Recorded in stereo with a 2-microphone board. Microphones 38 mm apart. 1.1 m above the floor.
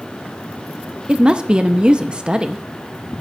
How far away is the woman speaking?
About 0.6 m.